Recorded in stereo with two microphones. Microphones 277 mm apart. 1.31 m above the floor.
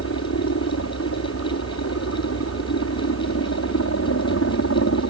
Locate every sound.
0.0 s a helicopter: 55° left (ahead or behind)